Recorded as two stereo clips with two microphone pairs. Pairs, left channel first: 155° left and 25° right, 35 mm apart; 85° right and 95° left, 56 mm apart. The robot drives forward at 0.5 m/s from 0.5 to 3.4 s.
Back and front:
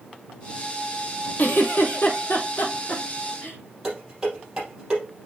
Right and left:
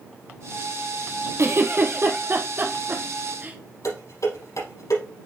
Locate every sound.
1.4 s a giggle: 125° left, 1.4 m; by 3.6 s 150° left, 2 m
3.8 s dishes clattering: 95° right, 5 m